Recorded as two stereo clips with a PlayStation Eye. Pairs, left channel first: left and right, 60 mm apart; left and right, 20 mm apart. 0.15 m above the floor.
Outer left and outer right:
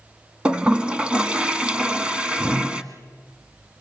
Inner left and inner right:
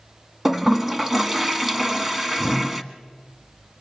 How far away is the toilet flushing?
About 1.3 m.